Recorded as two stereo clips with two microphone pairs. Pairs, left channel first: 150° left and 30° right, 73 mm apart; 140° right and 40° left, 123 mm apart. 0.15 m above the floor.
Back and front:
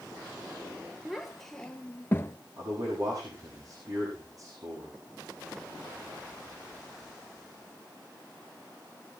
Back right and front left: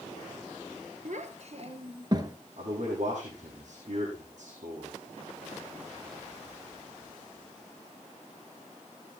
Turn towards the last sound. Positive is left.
turn(degrees=10)